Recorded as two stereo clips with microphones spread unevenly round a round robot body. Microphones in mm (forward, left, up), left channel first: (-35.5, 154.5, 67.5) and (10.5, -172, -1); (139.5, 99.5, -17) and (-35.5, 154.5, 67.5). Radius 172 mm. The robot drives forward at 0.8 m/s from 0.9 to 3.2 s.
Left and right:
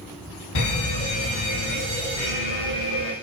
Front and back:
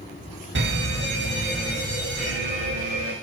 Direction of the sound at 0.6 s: 135° left.